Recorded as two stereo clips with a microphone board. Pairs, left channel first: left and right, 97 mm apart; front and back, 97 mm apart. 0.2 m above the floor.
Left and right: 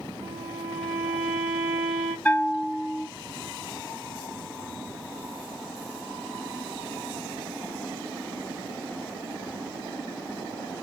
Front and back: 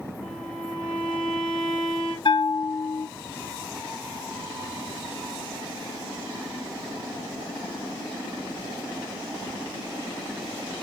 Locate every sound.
0.2 s a violin: 45° right, 5.5 m
2.2 s a bell: 15° left, 1.0 m